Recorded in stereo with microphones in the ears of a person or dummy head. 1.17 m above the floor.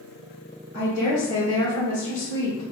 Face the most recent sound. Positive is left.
turn(degrees=65)  # may be behind; listen again after turning